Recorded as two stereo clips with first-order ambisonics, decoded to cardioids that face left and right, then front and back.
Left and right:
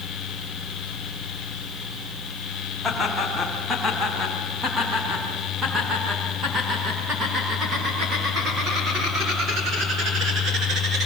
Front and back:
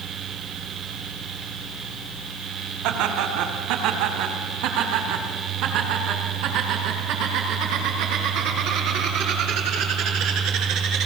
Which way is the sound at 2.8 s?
Straight behind.